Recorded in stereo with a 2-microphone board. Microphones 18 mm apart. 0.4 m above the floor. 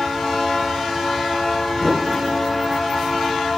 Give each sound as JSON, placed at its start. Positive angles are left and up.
{"t": 1.8, "sound": "a whoosh", "side_deg": -15, "distance_m": 1.2}